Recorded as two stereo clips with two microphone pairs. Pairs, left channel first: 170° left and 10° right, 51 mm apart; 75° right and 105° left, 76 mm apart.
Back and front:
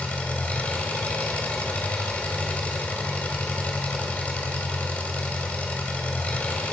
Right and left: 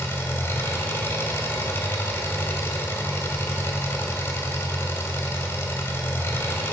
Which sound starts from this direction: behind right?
An engine running, at 0.0 s.